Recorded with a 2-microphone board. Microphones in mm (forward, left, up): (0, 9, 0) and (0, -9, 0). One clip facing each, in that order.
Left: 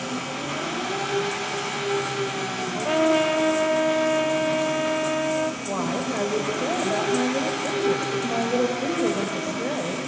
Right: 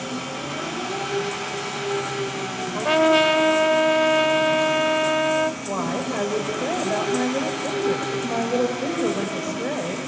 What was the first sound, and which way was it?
An engine running, 70° left (ahead or behind).